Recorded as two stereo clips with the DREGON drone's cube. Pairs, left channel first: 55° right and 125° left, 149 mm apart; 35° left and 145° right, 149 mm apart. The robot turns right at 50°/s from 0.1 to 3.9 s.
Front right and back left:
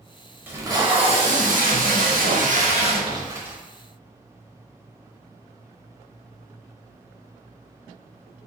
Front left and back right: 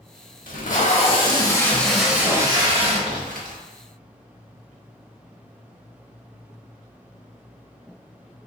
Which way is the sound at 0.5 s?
50° left.